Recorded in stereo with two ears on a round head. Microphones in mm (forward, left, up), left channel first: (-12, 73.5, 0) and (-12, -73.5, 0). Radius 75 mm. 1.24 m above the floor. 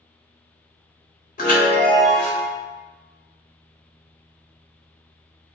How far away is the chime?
About 1.3 m.